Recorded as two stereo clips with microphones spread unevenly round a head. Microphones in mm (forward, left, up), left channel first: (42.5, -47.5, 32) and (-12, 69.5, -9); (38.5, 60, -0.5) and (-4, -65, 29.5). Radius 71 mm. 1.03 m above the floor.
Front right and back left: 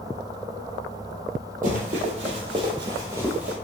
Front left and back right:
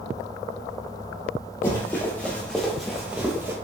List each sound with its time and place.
1.6 s running footsteps: 145° left, 1.4 m; by 3.5 s 140° right, 1.1 m